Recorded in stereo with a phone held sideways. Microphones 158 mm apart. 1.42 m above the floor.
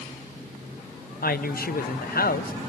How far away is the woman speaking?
About 0.6 m.